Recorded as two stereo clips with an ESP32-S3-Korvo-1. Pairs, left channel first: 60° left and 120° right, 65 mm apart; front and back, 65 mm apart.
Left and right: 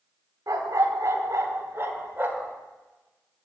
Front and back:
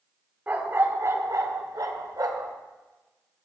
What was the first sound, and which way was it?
A dog barking, 120° right.